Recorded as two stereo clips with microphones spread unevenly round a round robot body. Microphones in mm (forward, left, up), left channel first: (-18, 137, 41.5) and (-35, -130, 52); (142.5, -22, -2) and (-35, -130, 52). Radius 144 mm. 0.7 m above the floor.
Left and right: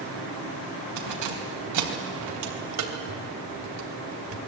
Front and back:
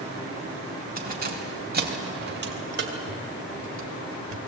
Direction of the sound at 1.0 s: 100° right.